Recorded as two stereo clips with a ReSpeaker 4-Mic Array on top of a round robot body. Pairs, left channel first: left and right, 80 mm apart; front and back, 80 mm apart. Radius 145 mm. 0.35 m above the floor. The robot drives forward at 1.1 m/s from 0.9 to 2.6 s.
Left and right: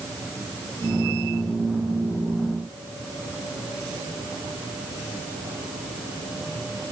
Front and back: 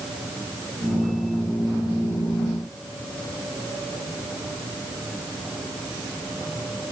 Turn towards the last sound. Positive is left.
No sound to turn to.